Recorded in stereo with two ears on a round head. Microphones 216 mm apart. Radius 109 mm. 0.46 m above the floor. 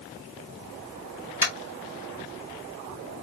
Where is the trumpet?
I don't hear a trumpet.